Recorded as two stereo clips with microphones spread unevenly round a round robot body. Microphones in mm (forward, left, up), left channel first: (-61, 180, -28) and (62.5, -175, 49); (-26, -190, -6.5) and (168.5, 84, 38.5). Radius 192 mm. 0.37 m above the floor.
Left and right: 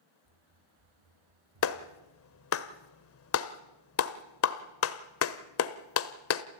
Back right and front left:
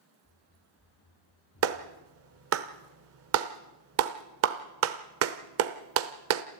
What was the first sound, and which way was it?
Running footsteps, 60° right.